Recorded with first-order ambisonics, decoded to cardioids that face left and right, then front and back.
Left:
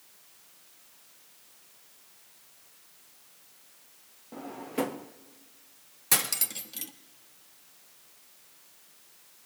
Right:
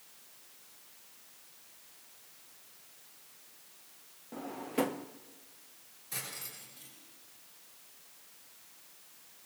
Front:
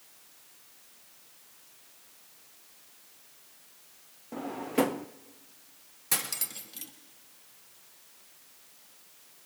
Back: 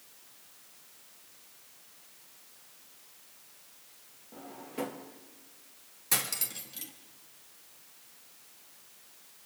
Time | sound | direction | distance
4.3 | a drawer | 5° left | 0.5 m
6.1 | cutlery clinking | 85° left | 1.3 m